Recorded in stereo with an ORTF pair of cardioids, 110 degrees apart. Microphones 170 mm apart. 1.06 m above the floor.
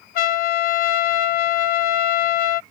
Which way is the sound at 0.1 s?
65° left.